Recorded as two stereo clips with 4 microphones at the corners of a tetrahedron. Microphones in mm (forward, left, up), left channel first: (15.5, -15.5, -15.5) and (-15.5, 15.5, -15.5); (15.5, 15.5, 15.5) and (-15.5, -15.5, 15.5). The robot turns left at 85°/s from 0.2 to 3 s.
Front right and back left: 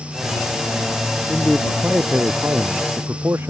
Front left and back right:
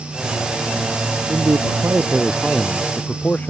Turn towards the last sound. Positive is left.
turn(degrees=100)